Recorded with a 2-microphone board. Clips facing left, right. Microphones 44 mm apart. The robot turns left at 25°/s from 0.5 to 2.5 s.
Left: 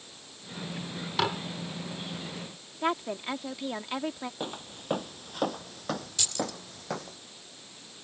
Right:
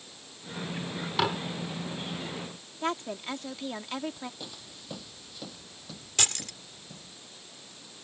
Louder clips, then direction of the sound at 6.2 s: Even; 55° right (ahead or behind).